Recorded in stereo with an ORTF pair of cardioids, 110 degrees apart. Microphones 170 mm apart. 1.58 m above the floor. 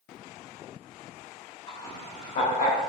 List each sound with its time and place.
1.7 s laughter: 30° left, 1.0 m; by 2.8 s 60° left, 1.4 m